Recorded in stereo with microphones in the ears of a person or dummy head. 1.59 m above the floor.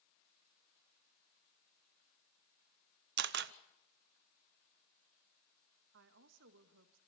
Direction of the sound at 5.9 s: 65° right (ahead or behind).